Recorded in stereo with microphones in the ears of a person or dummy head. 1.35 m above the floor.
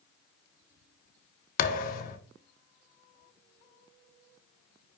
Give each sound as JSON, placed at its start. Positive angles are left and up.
{"t": 1.6, "sound": "a thud", "side_deg": 50, "distance_m": 1.4}